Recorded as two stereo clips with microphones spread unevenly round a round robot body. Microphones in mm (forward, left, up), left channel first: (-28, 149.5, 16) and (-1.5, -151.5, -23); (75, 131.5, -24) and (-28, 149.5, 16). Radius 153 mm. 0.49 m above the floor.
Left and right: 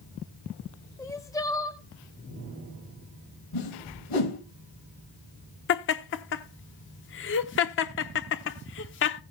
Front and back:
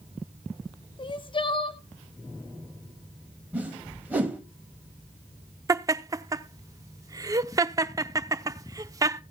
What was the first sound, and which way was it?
Crying, 15° left.